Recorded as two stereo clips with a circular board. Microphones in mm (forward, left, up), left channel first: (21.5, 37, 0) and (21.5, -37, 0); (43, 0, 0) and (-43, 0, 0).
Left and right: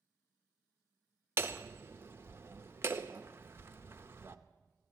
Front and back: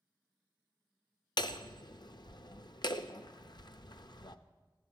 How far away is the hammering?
About 0.6 m.